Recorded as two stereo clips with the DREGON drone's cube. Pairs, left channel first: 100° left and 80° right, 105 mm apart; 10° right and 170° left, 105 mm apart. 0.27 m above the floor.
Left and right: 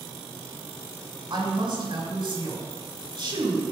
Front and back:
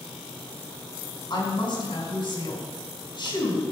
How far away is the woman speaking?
About 4 m.